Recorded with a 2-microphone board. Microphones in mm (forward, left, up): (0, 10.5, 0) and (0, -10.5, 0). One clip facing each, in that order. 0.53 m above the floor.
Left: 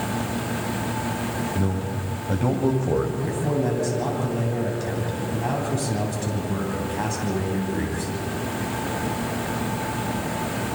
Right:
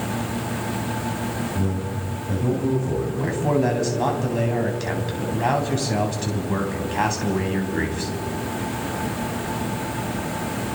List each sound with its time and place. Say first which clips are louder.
1.6 s a man speaking: even; 20° left (ahead or behind), 3.5 m; by 3.1 s 45° left (ahead or behind), 2 m
3.2 s a man speaking: right 3 dB; 30° right (ahead or behind), 3.5 m